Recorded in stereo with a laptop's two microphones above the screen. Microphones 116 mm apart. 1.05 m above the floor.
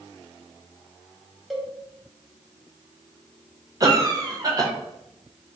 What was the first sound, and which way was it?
A cowbell, centre (ahead or behind).